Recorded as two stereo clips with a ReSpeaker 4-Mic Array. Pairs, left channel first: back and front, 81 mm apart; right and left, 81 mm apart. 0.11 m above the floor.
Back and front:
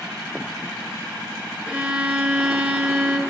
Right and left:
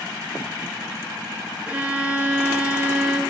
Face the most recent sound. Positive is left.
turn(degrees=50)